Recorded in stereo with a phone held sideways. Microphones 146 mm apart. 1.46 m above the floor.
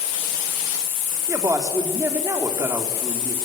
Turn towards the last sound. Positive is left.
turn(degrees=-20)  # may be behind; listen again after turning